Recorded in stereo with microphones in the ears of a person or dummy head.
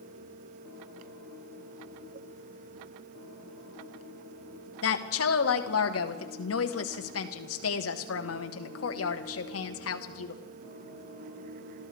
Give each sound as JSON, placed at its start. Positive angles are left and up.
{"t": 4.8, "sound": "a woman speaking", "side_deg": 80, "distance_m": 1.3}